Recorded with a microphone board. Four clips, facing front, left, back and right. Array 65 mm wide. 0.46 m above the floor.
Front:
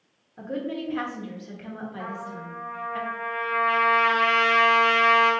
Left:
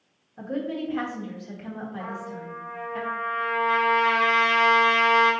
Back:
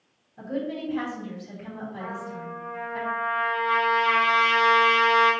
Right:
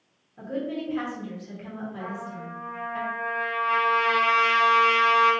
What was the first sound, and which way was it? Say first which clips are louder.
A woman speaking: left 1 dB, even; 20° left.